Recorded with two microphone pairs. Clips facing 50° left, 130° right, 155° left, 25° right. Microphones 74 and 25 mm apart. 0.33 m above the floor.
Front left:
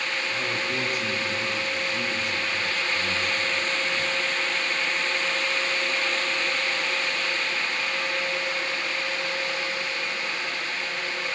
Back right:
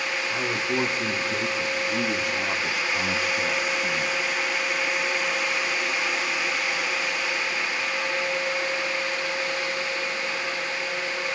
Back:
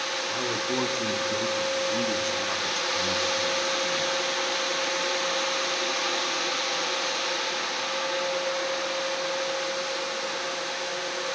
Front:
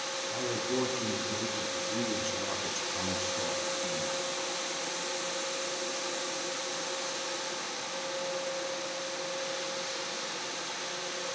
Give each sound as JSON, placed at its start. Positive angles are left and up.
{"t": 0.3, "sound": "a man speaking", "azimuth_deg": 165, "distance_m": 4.0}